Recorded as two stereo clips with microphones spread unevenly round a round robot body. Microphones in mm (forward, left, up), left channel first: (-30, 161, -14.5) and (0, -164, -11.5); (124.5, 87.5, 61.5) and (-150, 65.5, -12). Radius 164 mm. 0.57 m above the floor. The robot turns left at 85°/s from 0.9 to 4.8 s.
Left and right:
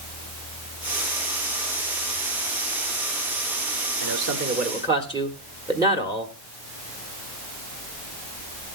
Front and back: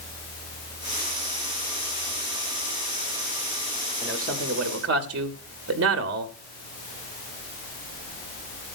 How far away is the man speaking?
About 1.2 m.